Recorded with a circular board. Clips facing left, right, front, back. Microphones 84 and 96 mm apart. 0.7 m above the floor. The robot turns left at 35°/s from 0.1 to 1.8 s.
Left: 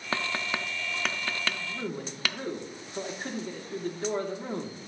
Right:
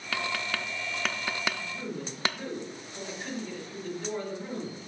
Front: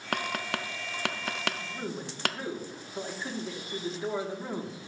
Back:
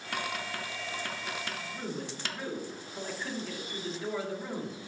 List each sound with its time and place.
0.1 s tapping: 30° left, 0.5 m; by 2.4 s 30° right, 0.5 m
1.5 s a man speaking: 70° left, 1.4 m; by 4.8 s 60° left, 1.4 m